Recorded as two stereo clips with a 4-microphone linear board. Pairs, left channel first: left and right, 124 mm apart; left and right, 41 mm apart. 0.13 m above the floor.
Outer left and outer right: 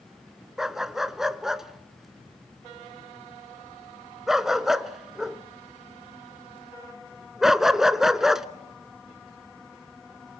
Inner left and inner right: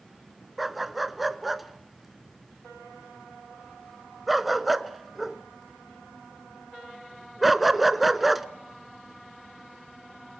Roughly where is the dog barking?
Centre.